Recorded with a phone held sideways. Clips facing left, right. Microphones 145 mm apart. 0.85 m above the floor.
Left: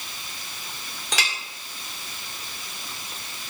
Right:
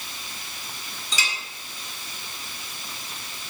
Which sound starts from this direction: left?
A clink, at 1.1 s.